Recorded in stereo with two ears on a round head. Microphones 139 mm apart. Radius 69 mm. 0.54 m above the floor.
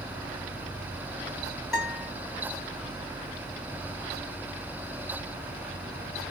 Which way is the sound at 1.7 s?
Centre (ahead or behind).